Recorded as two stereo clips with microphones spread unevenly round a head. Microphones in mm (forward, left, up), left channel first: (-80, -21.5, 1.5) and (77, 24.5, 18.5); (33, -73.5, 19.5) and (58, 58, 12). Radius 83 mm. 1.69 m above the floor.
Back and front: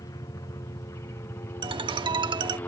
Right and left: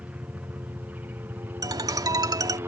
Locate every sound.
0.0 s a helicopter: 150° left; by 2.7 s 135° left
1.6 s a ringtone: 35° left